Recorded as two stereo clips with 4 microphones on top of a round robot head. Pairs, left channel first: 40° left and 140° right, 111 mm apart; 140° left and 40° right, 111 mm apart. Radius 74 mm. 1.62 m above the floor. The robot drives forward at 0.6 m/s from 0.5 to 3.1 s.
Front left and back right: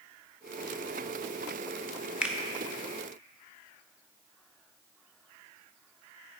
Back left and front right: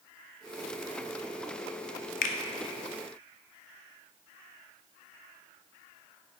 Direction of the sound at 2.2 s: 135° left.